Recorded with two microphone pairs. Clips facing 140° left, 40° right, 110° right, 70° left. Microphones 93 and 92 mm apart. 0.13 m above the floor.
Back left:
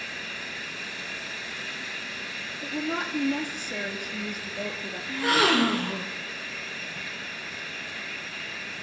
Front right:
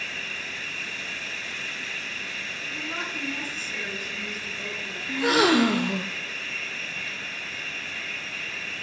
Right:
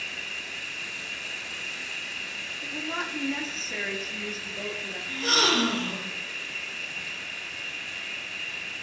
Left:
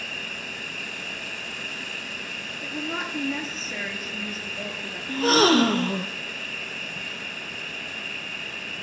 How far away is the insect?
About 1.1 m.